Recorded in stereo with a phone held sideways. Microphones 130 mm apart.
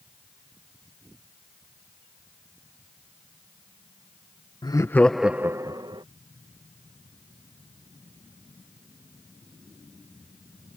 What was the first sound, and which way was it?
Laughter, 35° left (ahead or behind).